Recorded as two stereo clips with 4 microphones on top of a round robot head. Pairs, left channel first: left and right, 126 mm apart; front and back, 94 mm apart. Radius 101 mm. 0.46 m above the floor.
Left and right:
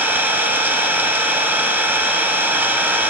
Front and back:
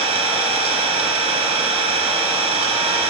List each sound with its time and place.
0.0 s an engine running: 165° right, 0.9 m